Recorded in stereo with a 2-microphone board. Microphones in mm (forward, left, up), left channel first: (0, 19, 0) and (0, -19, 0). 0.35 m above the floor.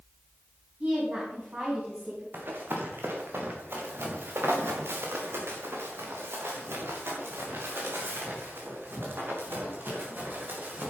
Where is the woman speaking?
40° right (ahead or behind), 3.5 m.